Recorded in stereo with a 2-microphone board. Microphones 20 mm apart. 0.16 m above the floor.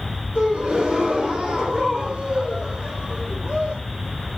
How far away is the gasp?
About 2.5 m.